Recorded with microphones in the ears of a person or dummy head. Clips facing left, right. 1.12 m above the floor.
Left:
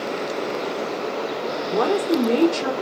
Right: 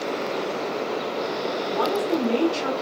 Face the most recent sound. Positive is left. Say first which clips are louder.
# left 4 dB
turn(degrees=70)  # may be behind; listen again after turning